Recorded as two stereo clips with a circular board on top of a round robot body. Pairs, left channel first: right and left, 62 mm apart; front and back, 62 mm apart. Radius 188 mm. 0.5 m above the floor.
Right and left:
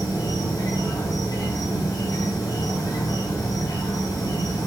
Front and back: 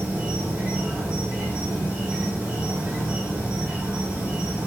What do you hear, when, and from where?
0.0 s an insect: 110° right, 0.7 m